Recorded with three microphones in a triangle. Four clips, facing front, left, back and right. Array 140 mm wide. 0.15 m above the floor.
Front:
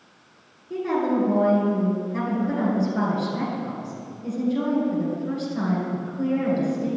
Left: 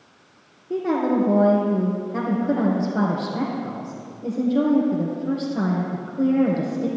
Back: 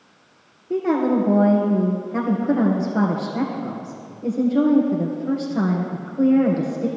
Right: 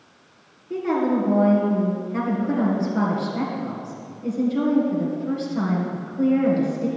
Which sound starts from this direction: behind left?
A woman speaking, at 0.7 s.